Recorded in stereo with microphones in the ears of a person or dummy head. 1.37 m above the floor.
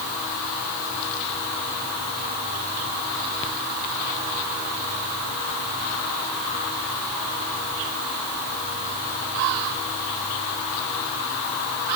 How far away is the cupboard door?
I don't hear a cupboard door.